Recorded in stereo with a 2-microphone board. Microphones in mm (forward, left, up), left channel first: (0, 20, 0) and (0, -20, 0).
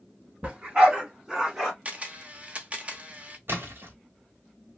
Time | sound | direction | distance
0.4 | a dog barking | 30° right (ahead or behind) | 1.7 m
1.9 | a camera shutter | 30° right (ahead or behind) | 0.7 m
3.5 | a splash | 65° right (ahead or behind) | 1.3 m